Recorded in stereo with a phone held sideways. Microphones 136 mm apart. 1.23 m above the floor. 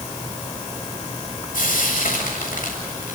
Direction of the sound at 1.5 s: 85° left.